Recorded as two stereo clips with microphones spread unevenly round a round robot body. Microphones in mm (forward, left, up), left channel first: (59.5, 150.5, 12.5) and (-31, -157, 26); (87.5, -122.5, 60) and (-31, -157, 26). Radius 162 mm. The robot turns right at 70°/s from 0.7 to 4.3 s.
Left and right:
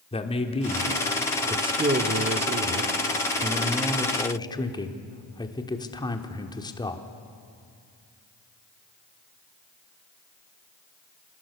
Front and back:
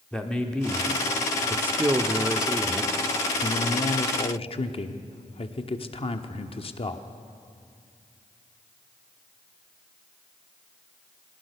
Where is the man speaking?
120° left, 1.1 m; by 7.1 s 15° left, 1.1 m.